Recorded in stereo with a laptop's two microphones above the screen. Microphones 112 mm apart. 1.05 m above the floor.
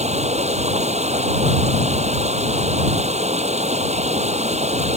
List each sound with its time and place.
0.0 s running water: 75° right (ahead or behind)